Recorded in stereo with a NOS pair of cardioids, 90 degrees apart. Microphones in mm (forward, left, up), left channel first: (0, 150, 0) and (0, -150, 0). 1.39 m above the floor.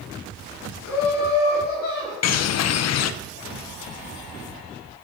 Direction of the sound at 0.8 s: 70° left.